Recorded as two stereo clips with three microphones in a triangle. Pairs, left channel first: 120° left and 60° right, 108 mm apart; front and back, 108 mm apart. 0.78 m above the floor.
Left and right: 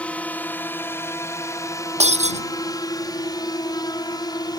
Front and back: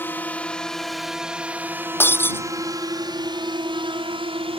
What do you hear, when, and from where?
0.0 s a drone: 55° left; by 4.6 s 165° left
2.0 s breaking glass: 70° right